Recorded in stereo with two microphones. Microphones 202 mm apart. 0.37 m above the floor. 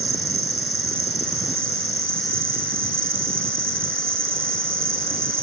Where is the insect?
75° right (ahead or behind), 1.0 m.